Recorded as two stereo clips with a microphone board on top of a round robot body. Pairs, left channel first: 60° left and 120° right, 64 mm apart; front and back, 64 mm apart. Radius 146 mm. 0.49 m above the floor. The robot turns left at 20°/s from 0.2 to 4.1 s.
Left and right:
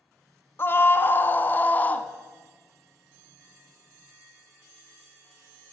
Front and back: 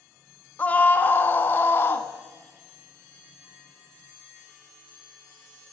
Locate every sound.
0.6 s a scream: 45° left, 1.2 m; by 2.1 s 15° left, 1.2 m